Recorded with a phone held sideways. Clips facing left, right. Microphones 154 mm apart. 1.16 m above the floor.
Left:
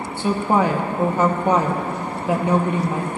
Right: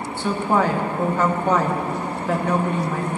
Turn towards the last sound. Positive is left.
turn(degrees=20)  # may be behind; listen again after turning